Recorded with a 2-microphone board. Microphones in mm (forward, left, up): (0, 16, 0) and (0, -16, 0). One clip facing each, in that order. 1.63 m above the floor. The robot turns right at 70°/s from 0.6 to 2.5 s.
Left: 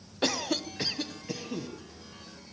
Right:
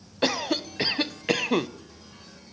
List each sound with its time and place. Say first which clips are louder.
0.2 s a cough: right 4 dB; 160° right, 1.0 m; by 1.7 s 85° right, 1.0 m